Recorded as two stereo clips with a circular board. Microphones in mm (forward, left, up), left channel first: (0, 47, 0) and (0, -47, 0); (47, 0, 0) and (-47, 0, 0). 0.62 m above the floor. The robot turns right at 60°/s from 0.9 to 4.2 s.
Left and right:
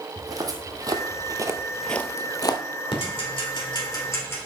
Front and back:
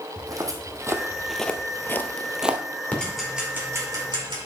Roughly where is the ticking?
Left.